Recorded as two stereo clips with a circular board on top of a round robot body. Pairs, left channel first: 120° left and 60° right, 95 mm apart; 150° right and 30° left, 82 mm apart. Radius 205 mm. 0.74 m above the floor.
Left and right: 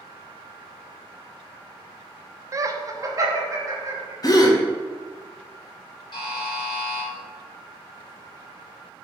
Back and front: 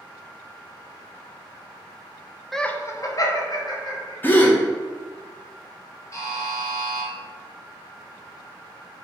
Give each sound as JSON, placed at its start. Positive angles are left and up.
{"t": 2.5, "sound": "laughter", "azimuth_deg": -60, "distance_m": 0.6}
{"t": 4.2, "sound": "a gasp", "azimuth_deg": 155, "distance_m": 0.7}
{"t": 6.1, "sound": "a buzzer", "azimuth_deg": 155, "distance_m": 0.9}